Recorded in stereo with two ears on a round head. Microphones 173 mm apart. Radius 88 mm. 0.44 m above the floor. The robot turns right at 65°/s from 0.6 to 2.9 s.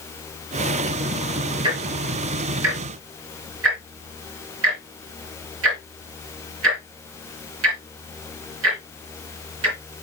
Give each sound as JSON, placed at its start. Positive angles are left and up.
{"t": 1.6, "sound": "ticking", "side_deg": -25, "distance_m": 3.5}